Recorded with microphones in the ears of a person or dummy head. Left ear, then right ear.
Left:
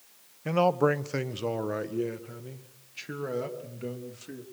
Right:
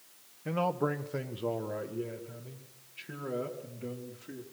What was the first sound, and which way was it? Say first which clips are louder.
A man speaking: left 7 dB; 75° left (ahead or behind).